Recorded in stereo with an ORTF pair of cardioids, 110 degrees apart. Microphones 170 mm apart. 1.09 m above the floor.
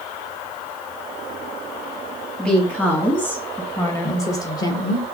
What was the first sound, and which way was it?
A woman speaking, 10° left.